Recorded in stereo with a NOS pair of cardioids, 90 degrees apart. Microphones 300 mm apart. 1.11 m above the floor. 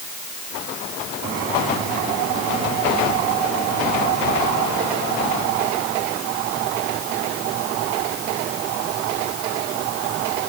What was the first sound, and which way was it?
Only background noise.